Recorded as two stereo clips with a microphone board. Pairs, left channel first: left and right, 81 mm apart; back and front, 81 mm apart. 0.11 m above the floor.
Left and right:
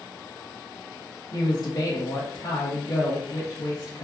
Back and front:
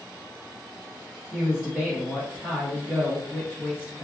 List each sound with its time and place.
1.3 s a man speaking: 80° left, 1.7 m